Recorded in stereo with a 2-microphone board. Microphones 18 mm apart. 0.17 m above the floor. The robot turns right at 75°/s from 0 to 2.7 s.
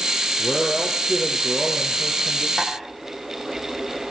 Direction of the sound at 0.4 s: 175° left.